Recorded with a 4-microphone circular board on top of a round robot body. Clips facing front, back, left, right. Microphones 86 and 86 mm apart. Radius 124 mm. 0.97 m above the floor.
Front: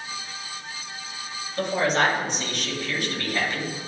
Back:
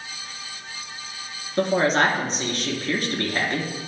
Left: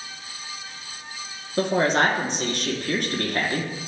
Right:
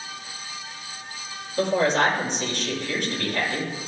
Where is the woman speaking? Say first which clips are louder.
Back 3 dB, even; 125° left, 3 m.